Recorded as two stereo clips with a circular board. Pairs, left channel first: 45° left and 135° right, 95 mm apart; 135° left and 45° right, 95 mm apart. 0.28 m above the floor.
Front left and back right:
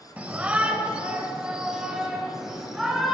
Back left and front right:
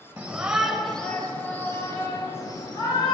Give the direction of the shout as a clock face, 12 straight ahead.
3 o'clock.